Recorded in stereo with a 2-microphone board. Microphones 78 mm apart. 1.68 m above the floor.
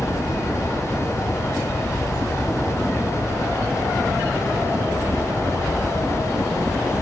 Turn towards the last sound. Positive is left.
turn(degrees=10)  # may be behind; listen again after turning